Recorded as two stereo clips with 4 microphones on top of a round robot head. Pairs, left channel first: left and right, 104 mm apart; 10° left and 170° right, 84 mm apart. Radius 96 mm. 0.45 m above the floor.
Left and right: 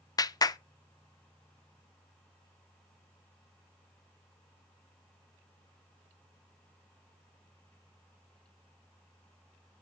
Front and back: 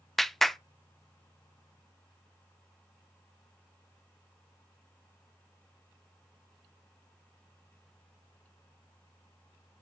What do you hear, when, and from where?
0.2 s a clap: 95° left, 0.6 m